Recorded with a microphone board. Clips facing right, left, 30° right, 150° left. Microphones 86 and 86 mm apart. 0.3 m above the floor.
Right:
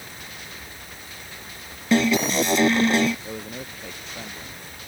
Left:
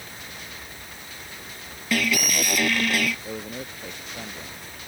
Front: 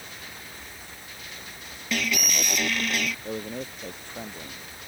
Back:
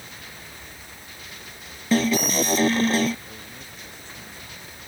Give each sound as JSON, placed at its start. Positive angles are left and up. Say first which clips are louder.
{"t": 1.9, "sound": "an alarm", "louder": "right 6 dB, back 8 dB", "azimuth_deg": -155}
{"t": 3.2, "sound": "a man speaking", "louder": "left 1 dB, front 10 dB", "azimuth_deg": 5}